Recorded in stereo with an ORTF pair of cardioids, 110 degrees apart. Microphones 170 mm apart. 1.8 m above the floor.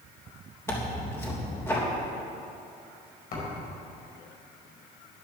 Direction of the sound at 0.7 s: 15° left.